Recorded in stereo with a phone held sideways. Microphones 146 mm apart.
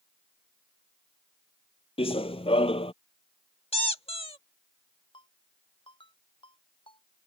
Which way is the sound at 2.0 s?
40° left (ahead or behind).